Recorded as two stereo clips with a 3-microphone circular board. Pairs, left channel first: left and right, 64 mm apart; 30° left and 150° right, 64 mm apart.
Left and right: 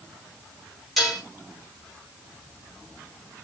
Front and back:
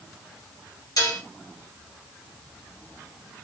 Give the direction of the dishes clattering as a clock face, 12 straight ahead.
12 o'clock.